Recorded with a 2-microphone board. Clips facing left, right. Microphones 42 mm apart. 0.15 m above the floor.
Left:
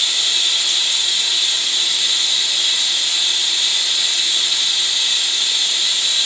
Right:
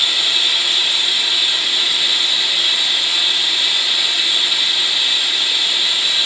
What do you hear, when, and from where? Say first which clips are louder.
0.0 s running water: right 2 dB; 20° right (ahead or behind), 1.4 m